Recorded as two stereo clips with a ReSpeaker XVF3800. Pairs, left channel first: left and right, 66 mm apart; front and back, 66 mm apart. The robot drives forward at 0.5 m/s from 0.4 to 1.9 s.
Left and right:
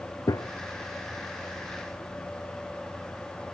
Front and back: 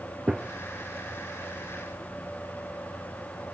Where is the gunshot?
100° left, 0.6 m.